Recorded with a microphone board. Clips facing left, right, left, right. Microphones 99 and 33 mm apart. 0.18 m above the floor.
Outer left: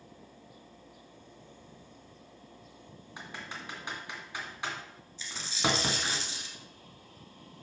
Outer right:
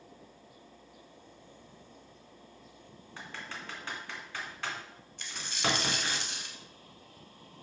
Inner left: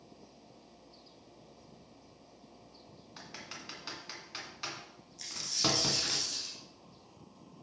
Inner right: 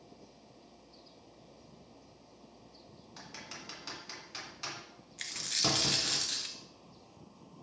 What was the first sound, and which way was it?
Typing on a keyboard, 15° left (ahead or behind).